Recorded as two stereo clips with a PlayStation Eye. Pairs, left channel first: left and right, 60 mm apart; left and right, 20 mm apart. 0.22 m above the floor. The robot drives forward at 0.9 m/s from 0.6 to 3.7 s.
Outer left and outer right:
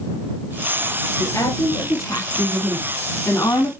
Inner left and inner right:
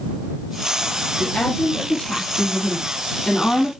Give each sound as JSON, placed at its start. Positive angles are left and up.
{"t": 1.2, "sound": "a woman speaking", "side_deg": 65, "distance_m": 5.5}